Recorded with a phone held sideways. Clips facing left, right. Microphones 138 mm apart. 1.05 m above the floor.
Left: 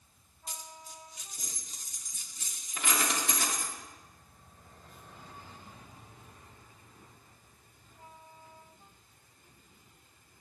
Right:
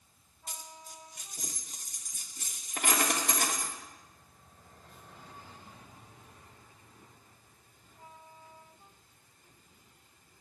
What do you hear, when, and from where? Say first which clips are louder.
0.5 s a dropped coin: even; 55° right (ahead or behind), 0.8 m